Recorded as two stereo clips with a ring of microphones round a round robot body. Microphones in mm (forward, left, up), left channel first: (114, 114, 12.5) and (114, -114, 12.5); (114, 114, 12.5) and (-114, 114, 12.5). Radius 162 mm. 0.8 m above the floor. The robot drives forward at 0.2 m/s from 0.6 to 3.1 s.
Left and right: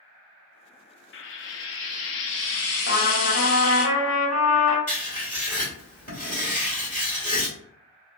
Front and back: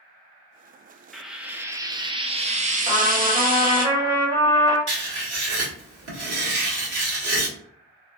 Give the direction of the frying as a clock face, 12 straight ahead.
9 o'clock.